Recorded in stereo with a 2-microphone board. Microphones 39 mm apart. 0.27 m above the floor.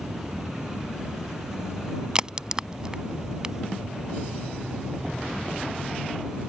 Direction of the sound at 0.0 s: 15° right (ahead or behind).